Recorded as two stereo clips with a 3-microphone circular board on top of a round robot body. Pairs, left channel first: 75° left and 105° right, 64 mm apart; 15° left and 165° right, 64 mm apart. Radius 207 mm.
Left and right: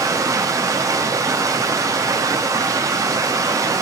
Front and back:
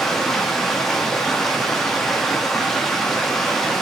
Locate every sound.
0.0 s running water: 70° right, 0.9 m